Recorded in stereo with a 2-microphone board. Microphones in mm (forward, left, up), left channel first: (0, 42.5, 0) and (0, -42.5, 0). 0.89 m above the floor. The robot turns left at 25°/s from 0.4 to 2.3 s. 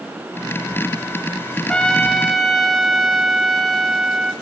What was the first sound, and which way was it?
A trumpet, 10° left (ahead or behind).